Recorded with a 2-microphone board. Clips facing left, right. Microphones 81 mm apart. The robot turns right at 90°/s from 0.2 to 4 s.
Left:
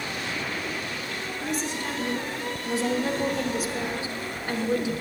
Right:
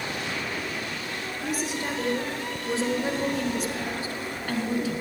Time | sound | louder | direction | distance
1.4 | a woman speaking | right 1 dB | centre (ahead or behind) | 1.1 m